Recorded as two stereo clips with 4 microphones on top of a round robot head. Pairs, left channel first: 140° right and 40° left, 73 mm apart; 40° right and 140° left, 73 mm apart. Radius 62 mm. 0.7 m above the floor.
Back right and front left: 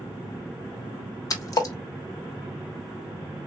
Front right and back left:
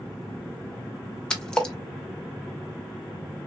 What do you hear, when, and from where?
1.3 s a splash: 115° right, 1.2 m